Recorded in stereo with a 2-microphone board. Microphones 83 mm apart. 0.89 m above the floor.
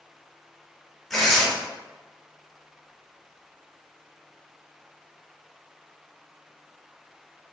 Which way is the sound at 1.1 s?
5° left (ahead or behind).